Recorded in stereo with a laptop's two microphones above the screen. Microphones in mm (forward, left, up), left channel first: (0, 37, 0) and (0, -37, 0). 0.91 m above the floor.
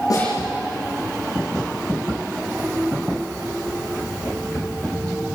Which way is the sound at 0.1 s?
50° left (ahead or behind).